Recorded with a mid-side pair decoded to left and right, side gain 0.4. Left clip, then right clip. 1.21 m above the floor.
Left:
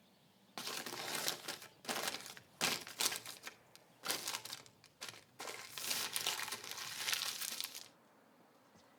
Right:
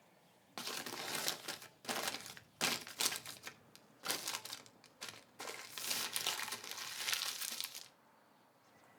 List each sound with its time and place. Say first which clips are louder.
0.6 s crumpling: even; 5° right, 1.1 m